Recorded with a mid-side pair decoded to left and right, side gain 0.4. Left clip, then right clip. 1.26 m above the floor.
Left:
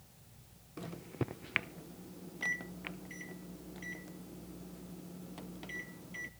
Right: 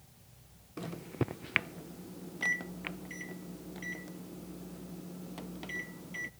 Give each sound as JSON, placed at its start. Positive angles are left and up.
{"t": 0.8, "sound": "a microwave", "azimuth_deg": -25, "distance_m": 0.6}